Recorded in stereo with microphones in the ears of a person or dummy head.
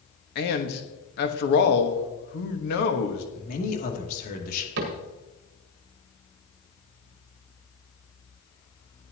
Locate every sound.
0.3 s a man speaking: 60° left (ahead or behind), 1.4 m
3.4 s a man speaking: 50° left (ahead or behind), 2.5 m
4.8 s a cupboard door: 55° right (ahead or behind), 1.4 m